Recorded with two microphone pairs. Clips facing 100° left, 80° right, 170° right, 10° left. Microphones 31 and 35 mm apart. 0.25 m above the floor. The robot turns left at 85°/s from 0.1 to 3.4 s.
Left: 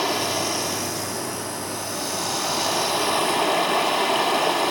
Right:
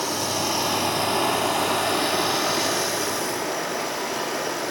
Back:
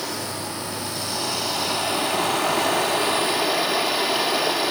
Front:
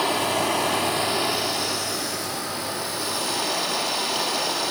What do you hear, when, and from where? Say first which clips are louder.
0.0 s running water: left 2 dB, front 7 dB; 40° left, 0.7 m; by 4.7 s 120° left, 0.7 m